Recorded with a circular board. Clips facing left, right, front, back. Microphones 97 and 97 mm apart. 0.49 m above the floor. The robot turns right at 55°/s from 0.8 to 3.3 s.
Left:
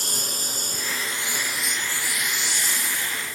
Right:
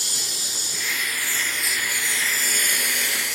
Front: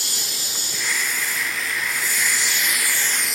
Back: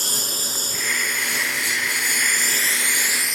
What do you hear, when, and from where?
0.0 s a lawn mower: 135° left; by 3.4 s 90° right